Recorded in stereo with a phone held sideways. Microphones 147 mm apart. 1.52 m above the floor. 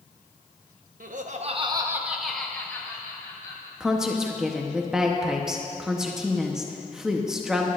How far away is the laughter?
About 1.0 m.